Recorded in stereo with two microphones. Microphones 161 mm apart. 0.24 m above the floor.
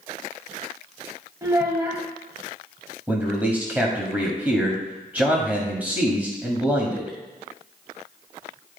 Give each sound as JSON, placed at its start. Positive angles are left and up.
{"t": 1.4, "sound": "a child speaking", "side_deg": -20, "distance_m": 0.9}
{"t": 3.1, "sound": "a man speaking", "side_deg": -10, "distance_m": 1.4}